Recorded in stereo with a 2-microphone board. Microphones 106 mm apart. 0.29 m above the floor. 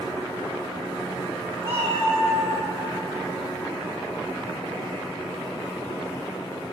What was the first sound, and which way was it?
A cat meowing, 55° right (ahead or behind).